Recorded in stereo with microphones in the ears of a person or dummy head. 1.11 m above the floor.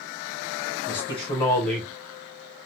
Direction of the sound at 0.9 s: 25° left (ahead or behind).